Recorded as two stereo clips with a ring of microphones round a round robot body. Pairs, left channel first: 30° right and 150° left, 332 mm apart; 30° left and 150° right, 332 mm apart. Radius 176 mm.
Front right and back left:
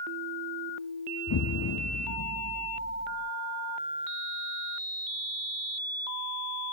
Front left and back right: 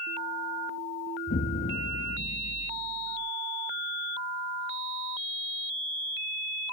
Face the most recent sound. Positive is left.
turn(degrees=-30)